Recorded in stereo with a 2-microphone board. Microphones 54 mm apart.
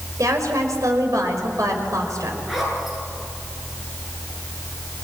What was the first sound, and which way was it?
A woman speaking, 85° right.